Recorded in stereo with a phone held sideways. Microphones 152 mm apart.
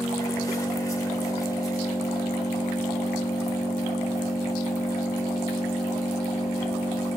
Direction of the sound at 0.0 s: 20° left (ahead or behind).